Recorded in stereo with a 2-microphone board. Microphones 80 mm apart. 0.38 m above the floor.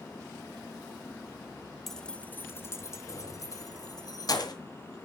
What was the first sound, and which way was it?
Keys jangling, 5° left (ahead or behind).